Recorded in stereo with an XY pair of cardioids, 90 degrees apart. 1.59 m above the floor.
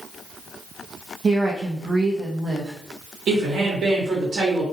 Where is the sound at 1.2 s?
35° right, 0.6 m.